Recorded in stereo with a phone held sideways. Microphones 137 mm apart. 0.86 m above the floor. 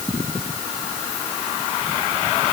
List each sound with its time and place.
Only background noise.